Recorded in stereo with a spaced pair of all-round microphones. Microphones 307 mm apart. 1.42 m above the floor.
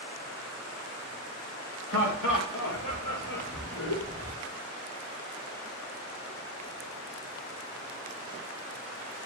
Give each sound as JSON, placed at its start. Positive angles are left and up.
{"t": 1.9, "sound": "laughter", "side_deg": 85, "distance_m": 2.5}